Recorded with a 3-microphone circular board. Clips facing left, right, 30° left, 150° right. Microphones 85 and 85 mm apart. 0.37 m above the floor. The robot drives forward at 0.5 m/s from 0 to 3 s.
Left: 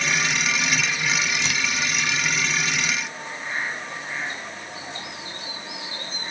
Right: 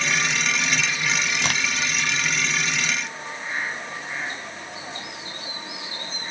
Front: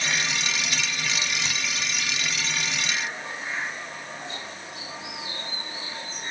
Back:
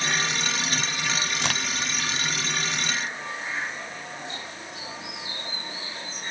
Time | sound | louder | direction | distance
1.4 | a crack | right 2 dB, back 3 dB | 125° right | 0.8 m